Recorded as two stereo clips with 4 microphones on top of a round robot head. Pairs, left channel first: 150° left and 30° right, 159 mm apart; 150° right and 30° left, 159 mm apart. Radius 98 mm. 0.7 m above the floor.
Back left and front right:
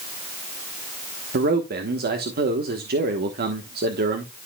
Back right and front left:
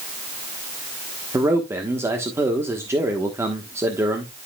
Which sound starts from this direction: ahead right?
A man speaking, at 1.3 s.